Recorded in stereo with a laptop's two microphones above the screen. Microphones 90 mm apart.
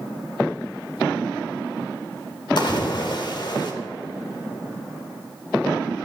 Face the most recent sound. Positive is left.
turn(degrees=55)  # may be behind; listen again after turning